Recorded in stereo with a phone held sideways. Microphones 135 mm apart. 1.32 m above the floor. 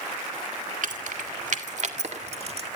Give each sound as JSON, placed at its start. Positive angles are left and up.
{"t": 0.8, "sound": "keys jangling", "side_deg": -70, "distance_m": 2.0}